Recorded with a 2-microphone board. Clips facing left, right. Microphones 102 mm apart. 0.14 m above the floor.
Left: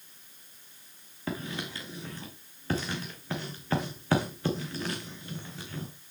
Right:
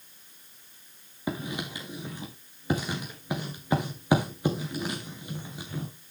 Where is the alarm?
No alarm in this recording.